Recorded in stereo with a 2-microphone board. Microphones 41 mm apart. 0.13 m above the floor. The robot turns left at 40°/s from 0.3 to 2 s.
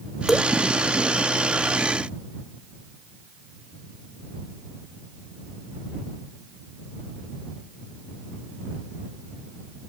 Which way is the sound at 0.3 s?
5° right (ahead or behind).